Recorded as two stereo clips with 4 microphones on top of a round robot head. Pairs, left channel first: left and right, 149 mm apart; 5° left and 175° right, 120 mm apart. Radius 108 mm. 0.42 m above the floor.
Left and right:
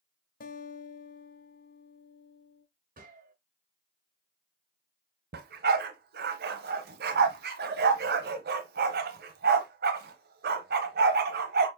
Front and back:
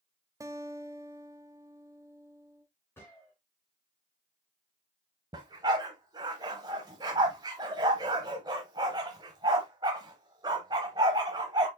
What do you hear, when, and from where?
0.4 s a guitar: 120° left, 0.8 m
3.0 s a gunshot: 70° right, 2.5 m
5.3 s a dog barking: 110° right, 0.9 m